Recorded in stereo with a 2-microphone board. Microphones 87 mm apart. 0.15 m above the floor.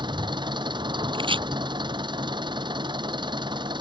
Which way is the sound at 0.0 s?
60° right (ahead or behind).